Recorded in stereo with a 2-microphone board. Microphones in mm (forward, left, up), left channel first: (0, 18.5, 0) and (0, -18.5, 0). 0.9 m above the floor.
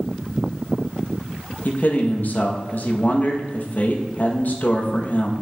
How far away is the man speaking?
About 1.1 m.